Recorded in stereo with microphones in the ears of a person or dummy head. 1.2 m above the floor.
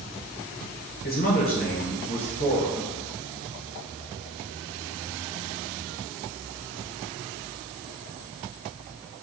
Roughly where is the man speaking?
Left.